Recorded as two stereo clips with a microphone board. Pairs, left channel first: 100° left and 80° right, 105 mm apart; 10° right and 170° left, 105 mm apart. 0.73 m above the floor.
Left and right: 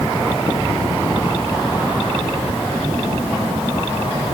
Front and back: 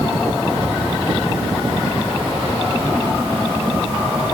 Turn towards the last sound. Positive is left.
No sound to turn to.